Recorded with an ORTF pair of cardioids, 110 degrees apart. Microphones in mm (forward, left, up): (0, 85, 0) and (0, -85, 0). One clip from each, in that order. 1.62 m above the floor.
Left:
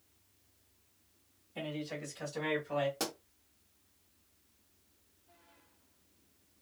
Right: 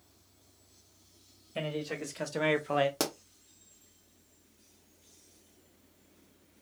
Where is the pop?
50° right, 0.9 m.